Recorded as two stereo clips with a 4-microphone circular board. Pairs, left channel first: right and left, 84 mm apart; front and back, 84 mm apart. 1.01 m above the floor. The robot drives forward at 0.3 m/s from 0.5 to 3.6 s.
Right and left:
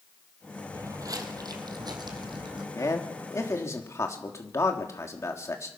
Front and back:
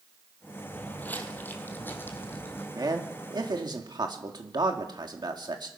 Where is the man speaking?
140° right, 1.5 m; by 5.7 s 145° right, 1.7 m.